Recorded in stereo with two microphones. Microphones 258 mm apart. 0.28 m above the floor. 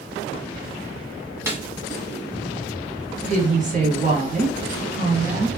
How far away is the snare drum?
About 1.1 m.